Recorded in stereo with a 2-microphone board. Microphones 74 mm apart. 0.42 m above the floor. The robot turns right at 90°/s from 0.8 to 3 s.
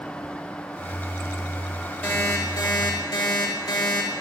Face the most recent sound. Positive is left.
turn(degrees=110)